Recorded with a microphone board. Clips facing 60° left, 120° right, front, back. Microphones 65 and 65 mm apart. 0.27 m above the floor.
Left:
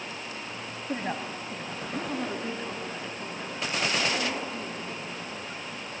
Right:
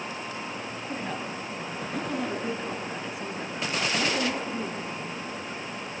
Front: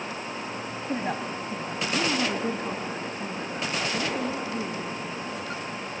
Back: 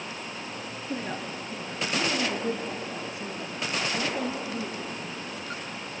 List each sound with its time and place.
0.9 s a woman speaking: 20° left, 1.8 m; by 5.1 s 50° right, 5.5 m